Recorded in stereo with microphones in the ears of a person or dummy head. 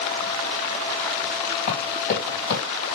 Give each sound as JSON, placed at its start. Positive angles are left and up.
{"t": 1.7, "sound": "running footsteps", "side_deg": 45, "distance_m": 3.0}